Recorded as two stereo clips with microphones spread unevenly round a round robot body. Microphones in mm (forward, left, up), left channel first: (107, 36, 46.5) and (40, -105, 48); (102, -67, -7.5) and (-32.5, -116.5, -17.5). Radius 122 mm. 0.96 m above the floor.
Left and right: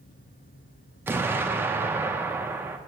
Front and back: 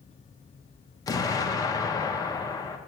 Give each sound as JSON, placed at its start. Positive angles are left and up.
{"t": 1.1, "sound": "an explosion", "azimuth_deg": -40, "distance_m": 0.9}